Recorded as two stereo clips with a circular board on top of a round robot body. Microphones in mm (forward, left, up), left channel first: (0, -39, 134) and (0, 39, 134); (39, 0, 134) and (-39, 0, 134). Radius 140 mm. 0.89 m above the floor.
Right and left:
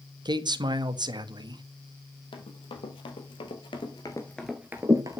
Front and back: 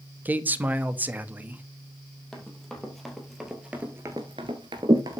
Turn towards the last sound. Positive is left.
turn(degrees=135)